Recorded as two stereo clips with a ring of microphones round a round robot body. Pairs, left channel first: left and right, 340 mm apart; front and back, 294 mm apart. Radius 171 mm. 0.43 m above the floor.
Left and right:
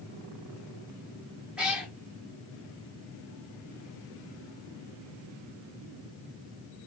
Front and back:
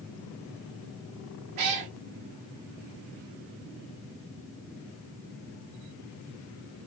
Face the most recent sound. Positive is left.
turn(degrees=-175)